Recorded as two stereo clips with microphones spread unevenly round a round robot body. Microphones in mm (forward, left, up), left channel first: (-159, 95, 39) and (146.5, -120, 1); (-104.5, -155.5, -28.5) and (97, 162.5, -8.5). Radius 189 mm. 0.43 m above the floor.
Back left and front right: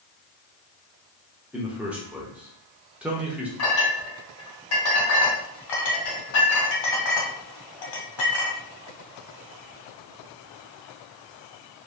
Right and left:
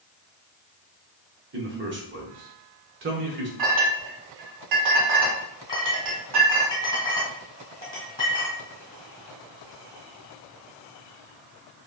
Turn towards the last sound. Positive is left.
turn(degrees=160)